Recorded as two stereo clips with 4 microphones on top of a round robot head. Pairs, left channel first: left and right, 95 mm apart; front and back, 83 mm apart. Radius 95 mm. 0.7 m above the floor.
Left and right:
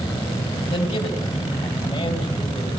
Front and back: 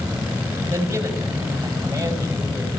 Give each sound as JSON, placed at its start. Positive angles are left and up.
{"t": 0.7, "sound": "a man speaking", "azimuth_deg": 115, "distance_m": 4.5}